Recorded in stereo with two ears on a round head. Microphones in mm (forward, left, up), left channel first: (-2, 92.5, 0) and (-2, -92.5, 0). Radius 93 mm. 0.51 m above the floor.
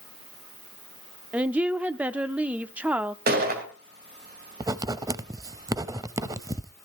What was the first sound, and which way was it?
A woman speaking, 5° right (ahead or behind).